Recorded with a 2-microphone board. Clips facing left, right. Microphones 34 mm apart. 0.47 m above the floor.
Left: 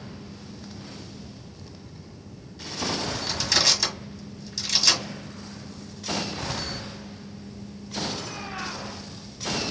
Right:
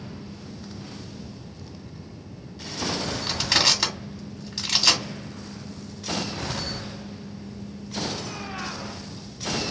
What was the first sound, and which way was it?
Crushing, 40° right (ahead or behind).